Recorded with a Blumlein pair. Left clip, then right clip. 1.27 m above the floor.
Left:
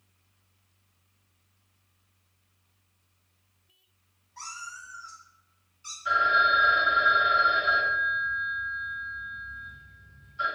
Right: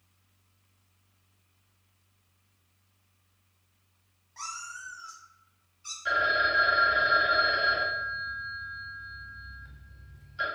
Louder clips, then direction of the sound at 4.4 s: Right 1 dB; 15° right.